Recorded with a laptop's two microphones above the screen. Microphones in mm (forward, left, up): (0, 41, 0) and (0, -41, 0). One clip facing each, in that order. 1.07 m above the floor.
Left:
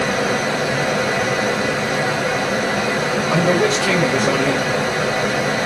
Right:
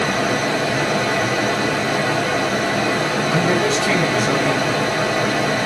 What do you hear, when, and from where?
0.0 s a fan: 10° left (ahead or behind), 1.2 m
3.3 s a man speaking: 60° left (ahead or behind), 1.4 m